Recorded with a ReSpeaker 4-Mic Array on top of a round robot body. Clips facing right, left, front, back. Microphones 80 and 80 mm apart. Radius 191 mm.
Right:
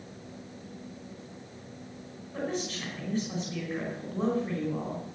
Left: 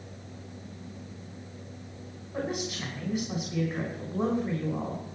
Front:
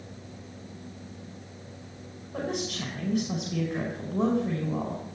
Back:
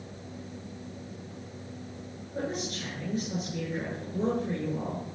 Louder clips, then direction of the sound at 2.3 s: Left 1 dB, front 2 dB; 15° left.